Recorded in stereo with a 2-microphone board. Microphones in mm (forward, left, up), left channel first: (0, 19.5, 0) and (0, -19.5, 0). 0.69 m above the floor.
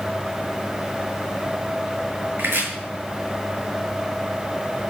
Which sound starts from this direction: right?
Chopping, at 2.4 s.